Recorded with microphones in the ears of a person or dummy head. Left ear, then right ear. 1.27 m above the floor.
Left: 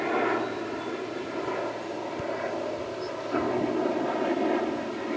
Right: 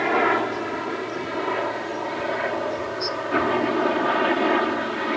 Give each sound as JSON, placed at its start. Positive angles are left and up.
{"t": 0.0, "sound": "a helicopter", "side_deg": -70}